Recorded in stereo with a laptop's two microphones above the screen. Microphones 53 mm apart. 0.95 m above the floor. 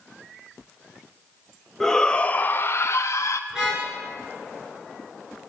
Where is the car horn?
10° right (ahead or behind), 6.5 m.